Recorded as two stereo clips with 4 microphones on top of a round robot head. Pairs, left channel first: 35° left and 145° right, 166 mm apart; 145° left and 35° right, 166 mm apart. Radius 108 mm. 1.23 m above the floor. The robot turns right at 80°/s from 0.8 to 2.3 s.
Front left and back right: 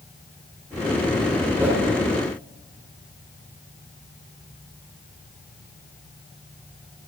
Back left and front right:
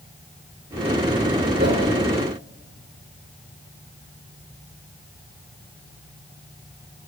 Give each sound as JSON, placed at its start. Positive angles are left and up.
{"t": 1.6, "sound": "a whoosh", "azimuth_deg": -70, "distance_m": 1.3}